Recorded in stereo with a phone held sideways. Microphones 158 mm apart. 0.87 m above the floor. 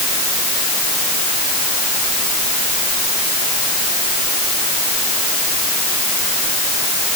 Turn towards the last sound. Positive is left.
No sound to turn to.